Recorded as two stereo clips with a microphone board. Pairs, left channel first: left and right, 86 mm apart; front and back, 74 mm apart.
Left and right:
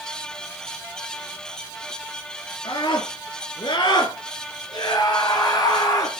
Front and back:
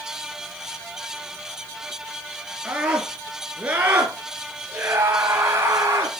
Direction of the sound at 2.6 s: 105° left.